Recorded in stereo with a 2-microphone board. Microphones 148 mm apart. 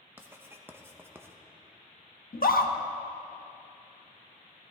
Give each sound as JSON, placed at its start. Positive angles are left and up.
{"t": 0.2, "sound": "writing", "side_deg": -15, "distance_m": 0.9}
{"t": 2.3, "sound": "a scream", "side_deg": 80, "distance_m": 1.1}